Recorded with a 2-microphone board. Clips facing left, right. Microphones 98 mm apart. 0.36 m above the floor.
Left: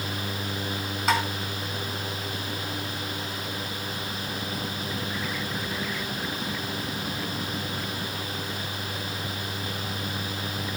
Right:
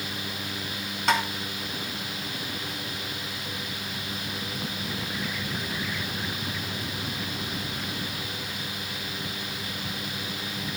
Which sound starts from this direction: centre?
Tapping, at 1.1 s.